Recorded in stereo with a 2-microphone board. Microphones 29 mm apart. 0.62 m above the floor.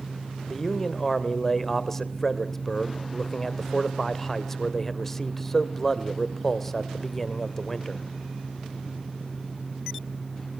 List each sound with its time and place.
0.5 s a man speaking: 10° left (ahead or behind), 1.9 m